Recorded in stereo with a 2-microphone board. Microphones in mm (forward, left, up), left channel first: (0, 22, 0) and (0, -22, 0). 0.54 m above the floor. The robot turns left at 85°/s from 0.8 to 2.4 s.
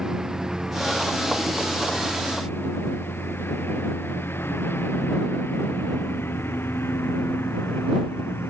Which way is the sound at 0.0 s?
10° right (ahead or behind).